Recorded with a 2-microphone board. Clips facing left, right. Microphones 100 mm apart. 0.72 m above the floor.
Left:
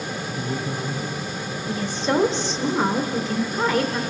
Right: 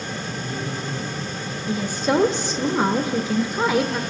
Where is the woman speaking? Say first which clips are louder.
Right 2 dB; 15° right (ahead or behind), 0.6 m.